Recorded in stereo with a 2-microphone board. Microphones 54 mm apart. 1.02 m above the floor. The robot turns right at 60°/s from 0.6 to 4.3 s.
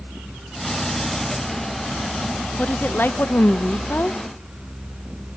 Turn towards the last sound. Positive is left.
turn(degrees=140)